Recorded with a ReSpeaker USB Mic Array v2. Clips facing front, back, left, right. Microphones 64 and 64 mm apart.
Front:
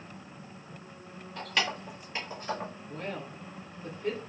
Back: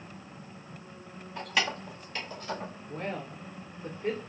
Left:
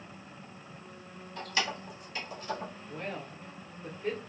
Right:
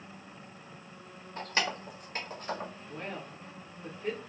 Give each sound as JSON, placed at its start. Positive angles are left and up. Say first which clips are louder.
{"t": 1.4, "sound": "keys jangling", "louder": "back 1 dB, right 1 dB", "azimuth_deg": -115, "distance_m": 0.7}
{"t": 2.9, "sound": "a woman speaking", "louder": "back 5 dB, left 1 dB", "azimuth_deg": -170, "distance_m": 0.9}